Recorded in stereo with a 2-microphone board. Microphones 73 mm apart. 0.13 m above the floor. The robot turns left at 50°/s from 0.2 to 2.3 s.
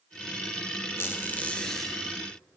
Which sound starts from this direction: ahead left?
A squeak, at 1.0 s.